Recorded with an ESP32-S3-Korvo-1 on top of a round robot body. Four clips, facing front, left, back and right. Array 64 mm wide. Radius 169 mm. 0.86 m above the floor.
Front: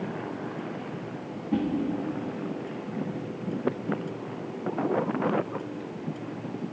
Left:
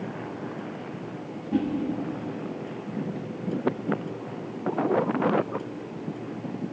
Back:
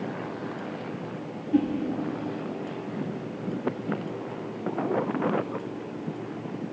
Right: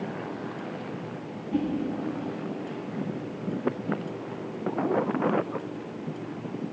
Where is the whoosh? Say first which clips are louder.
Left 2 dB, back 4 dB; 20° left, 5 m.